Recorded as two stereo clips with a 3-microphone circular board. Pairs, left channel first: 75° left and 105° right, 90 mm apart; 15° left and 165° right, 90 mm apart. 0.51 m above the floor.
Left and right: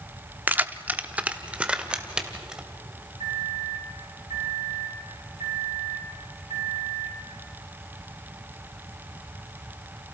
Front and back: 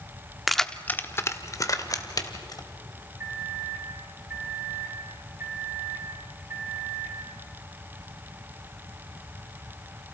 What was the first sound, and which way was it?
Keys jangling, 80° right.